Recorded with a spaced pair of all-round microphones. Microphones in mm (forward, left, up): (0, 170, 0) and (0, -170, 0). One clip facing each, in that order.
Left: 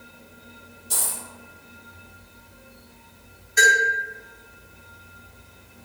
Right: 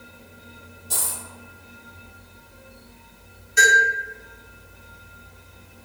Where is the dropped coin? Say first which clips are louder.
Even; centre (ahead or behind), 1.6 m.